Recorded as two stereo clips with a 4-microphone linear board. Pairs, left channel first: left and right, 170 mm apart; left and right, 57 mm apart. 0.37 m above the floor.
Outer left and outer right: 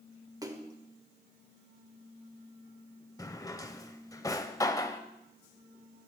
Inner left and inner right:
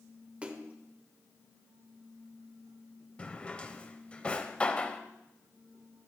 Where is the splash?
20° right (ahead or behind), 0.8 m.